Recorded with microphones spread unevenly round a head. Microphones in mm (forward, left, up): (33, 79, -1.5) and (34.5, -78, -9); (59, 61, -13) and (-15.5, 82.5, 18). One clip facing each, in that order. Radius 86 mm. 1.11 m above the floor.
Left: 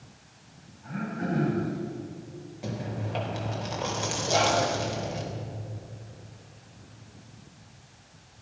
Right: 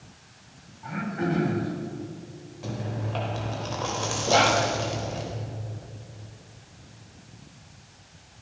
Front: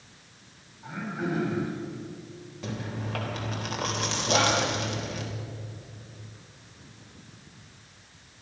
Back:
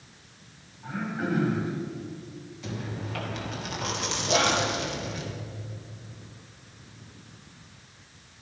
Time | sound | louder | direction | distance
0.8 | throat clearing | right 3 dB, back 1 dB | 100° right | 4 m
2.6 | chewing | right 1 dB, front 1 dB | 20° left | 3.5 m
4.3 | whispering | right 3 dB, even | 80° right | 2.5 m